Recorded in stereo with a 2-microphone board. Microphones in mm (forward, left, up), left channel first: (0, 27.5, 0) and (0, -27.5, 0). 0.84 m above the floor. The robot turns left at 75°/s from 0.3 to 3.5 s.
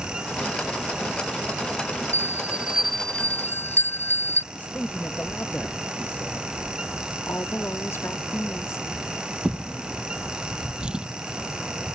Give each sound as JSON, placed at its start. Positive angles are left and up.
{"t": 2.1, "sound": "a bell", "azimuth_deg": -120}
{"t": 4.5, "sound": "a man speaking", "side_deg": 35}
{"t": 7.3, "sound": "a woman speaking", "side_deg": 50}
{"t": 9.4, "sound": "a drawer", "side_deg": -15}